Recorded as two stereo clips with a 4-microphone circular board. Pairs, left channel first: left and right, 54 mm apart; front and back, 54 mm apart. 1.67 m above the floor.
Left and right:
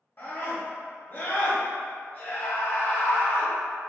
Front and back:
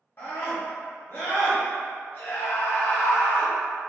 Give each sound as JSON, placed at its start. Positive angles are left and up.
{"t": 0.2, "sound": "a scream", "azimuth_deg": 45, "distance_m": 0.8}